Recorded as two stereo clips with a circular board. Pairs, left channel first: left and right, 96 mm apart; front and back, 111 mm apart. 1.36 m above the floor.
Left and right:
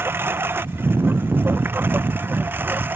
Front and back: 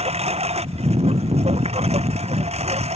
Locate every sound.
0.0 s a lawn mower: 160° right